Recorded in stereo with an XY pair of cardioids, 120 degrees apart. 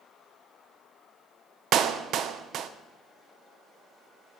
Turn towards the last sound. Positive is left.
turn(degrees=-65)